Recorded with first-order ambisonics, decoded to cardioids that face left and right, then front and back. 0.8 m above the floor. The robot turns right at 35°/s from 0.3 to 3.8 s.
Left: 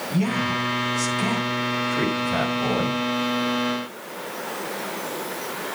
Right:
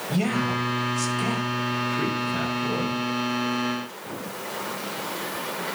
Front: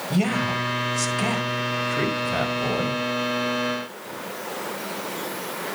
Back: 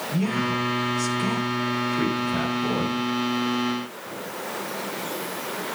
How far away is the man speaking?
About 5 m.